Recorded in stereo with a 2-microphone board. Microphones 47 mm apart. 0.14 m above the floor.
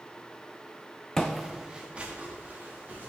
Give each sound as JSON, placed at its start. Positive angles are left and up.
{"t": 1.2, "sound": "footsteps", "side_deg": 15, "distance_m": 0.6}